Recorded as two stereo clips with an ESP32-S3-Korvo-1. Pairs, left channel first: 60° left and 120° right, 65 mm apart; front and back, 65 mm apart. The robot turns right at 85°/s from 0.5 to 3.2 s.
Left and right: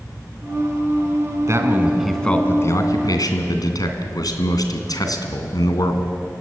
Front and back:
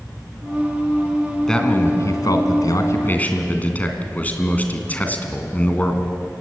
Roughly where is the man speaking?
Right.